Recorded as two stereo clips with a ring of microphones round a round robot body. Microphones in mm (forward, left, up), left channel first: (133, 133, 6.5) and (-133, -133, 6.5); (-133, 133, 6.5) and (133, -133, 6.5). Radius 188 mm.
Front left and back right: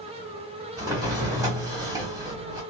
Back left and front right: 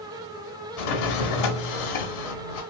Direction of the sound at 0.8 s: 145° left.